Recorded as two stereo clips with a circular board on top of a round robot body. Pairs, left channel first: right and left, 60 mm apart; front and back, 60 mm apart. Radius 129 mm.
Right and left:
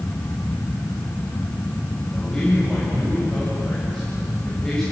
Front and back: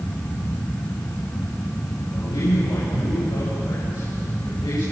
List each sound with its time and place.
2.1 s a man speaking: 5° right, 6.5 m